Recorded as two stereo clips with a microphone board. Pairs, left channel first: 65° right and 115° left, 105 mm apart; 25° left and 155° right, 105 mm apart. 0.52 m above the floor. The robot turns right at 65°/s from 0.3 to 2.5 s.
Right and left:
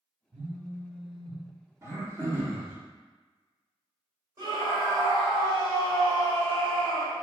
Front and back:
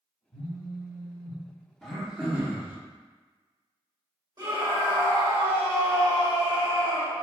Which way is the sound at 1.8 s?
105° left.